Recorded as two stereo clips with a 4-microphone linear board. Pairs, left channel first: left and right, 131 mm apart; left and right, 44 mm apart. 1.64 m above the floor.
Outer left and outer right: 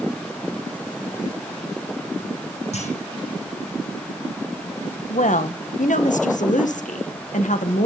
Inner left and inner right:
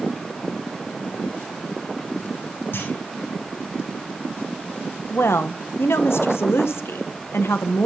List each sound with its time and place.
2.7 s a clunk: 60° left (ahead or behind), 7.5 m
5.1 s a woman speaking: 75° left (ahead or behind), 1.8 m